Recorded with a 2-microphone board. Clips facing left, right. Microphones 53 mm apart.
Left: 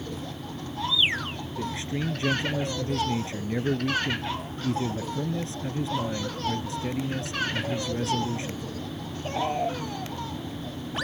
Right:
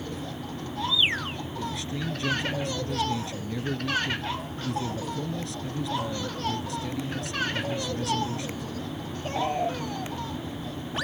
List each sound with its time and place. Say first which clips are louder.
1.6 s a man speaking: left 3 dB; 30° left (ahead or behind)